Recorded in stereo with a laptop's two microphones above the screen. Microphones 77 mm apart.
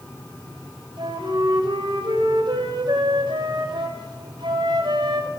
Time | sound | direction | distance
1.0 | a flute | 80° right | 3 m